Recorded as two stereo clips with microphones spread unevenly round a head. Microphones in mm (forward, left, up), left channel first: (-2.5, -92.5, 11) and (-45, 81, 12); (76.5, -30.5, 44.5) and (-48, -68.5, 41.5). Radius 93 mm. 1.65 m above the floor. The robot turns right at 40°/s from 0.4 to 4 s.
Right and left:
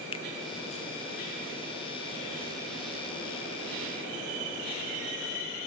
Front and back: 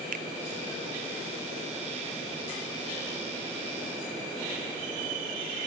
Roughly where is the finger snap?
Behind right.